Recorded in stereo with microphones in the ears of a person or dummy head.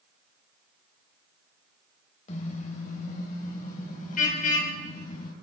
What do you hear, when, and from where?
2.3 s a car horn: 45° left (ahead or behind), 3.5 m; by 5.3 s 55° left (ahead or behind), 5.5 m